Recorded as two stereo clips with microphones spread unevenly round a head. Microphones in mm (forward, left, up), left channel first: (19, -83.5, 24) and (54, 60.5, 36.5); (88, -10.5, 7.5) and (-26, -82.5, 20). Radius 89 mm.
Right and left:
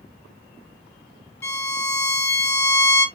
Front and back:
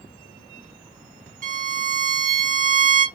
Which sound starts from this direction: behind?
A violin, at 1.4 s.